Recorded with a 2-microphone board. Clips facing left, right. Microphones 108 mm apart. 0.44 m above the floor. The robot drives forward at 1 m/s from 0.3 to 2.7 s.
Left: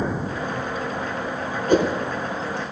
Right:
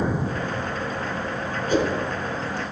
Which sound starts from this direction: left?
A whoosh, at 1.7 s.